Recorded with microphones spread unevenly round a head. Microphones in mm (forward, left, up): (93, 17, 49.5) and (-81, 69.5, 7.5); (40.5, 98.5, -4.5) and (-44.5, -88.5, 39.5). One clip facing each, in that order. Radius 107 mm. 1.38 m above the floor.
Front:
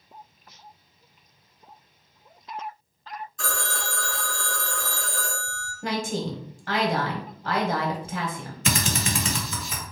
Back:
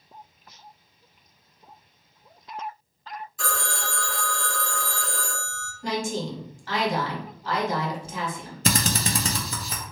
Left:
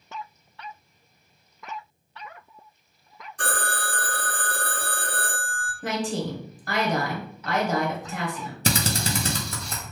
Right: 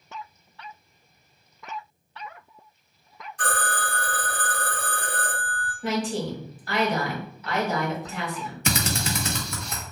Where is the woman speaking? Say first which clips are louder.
Even, right 1 dB; 25° left, 1.1 m.